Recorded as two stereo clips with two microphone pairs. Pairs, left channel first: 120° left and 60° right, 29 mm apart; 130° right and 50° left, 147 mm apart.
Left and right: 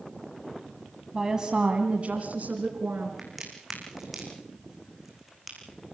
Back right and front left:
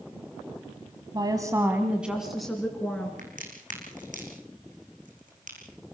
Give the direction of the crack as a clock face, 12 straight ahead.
11 o'clock.